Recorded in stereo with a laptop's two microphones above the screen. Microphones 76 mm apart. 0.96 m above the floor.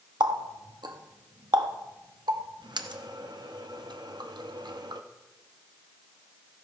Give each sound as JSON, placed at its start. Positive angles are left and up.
{"t": 0.2, "sound": "a running tap", "side_deg": -70, "distance_m": 0.8}